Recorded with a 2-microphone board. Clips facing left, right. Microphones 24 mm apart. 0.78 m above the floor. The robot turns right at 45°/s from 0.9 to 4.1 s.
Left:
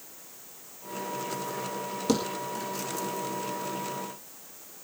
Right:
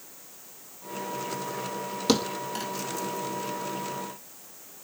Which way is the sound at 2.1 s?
50° right (ahead or behind).